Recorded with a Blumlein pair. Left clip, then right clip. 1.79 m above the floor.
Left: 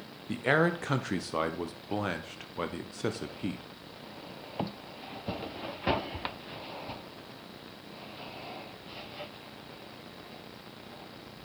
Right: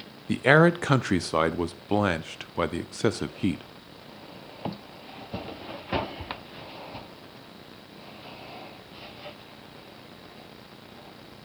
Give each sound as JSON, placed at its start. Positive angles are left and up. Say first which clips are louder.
{"t": 0.3, "sound": "a man speaking", "louder": "right 8 dB", "azimuth_deg": -20, "distance_m": 0.6}